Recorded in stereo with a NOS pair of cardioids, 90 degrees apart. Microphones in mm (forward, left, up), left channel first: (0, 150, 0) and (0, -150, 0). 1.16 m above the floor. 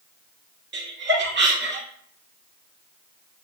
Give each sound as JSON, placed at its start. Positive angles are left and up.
{"t": 0.7, "sound": "laughter", "azimuth_deg": -35, "distance_m": 0.9}